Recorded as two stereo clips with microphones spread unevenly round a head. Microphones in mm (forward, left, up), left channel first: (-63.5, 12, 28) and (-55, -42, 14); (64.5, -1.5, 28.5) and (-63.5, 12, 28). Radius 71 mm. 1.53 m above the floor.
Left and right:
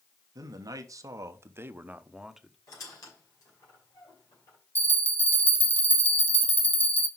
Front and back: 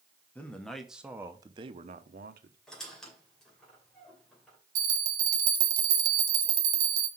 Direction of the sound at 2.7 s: 80° left.